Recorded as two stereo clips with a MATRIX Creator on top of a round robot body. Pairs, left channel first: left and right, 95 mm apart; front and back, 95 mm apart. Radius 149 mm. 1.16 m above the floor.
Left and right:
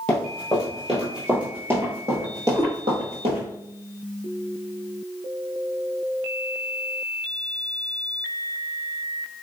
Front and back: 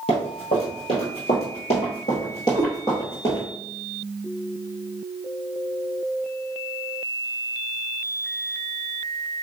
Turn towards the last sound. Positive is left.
turn(degrees=-140)